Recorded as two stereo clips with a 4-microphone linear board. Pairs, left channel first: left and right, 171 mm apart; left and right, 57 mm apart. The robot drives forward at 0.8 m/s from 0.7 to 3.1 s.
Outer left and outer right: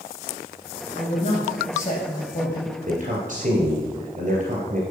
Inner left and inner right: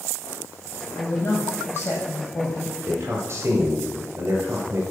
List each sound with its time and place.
0.9 s a woman speaking: 40° left (ahead or behind), 5 m; by 2.8 s 55° left (ahead or behind), 4 m
2.9 s a man speaking: 50° right (ahead or behind), 3 m